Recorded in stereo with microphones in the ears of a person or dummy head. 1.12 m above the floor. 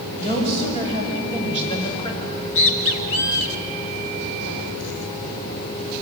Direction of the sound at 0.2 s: 35° left (ahead or behind).